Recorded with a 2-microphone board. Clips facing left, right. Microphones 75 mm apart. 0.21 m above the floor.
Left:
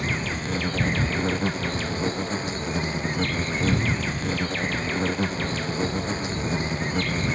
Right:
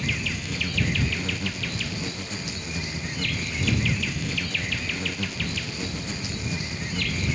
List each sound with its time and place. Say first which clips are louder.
0.0 s an insect: left 3 dB; 40° left (ahead or behind)